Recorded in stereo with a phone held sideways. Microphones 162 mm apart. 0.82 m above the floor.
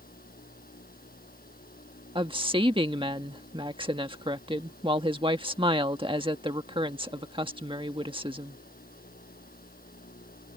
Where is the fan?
65° left (ahead or behind).